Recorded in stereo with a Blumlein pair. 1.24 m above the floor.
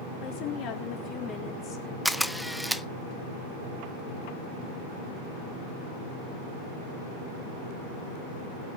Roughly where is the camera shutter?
Ahead.